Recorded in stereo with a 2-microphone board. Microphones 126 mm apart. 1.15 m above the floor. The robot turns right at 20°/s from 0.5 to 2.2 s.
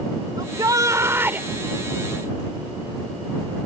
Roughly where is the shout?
Right.